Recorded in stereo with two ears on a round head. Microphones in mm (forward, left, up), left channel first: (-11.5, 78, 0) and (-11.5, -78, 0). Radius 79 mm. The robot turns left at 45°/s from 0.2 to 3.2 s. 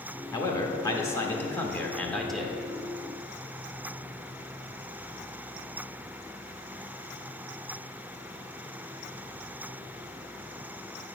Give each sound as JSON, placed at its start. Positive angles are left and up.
{"t": 0.3, "sound": "a man speaking", "side_deg": 20, "distance_m": 0.7}